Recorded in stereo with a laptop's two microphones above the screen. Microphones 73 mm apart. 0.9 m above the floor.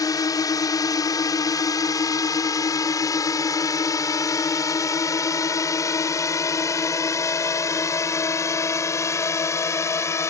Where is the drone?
60° left (ahead or behind); by 10.3 s 45° left (ahead or behind).